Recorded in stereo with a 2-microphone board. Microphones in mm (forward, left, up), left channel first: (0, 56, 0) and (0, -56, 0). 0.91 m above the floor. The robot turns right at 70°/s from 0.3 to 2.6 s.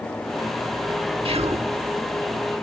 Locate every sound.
1.2 s whispering: 125° right; by 1.7 s 90° right